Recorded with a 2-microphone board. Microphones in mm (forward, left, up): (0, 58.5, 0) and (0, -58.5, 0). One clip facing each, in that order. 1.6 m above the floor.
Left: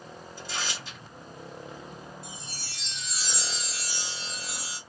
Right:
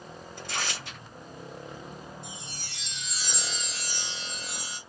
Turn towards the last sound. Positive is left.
turn(degrees=5)  # may be behind; listen again after turning